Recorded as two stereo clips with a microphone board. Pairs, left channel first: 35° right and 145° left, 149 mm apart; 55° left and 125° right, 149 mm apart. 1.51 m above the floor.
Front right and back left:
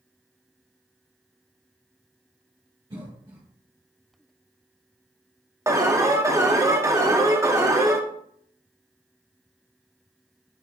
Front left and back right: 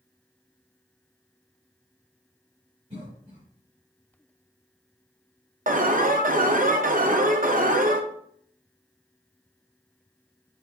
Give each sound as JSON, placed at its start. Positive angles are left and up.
{"t": 2.9, "sound": "a cough", "azimuth_deg": -160, "distance_m": 2.0}
{"t": 5.7, "sound": "an alarm", "azimuth_deg": -145, "distance_m": 0.5}